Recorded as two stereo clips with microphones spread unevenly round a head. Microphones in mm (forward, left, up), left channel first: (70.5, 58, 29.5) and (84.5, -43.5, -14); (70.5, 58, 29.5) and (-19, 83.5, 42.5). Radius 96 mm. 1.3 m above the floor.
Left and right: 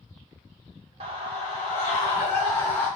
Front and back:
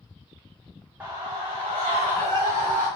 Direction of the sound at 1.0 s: 115° right.